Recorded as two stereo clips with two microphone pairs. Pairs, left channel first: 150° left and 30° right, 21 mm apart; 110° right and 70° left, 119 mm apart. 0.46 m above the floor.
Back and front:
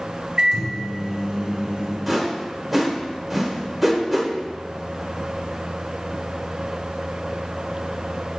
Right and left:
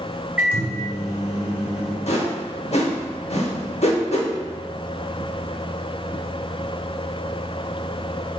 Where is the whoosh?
115° right, 0.8 m.